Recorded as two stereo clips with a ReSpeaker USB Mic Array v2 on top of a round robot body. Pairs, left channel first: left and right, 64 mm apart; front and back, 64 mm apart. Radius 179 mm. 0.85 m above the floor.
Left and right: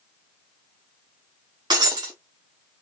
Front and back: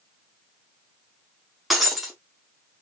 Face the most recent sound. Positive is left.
turn(degrees=-90)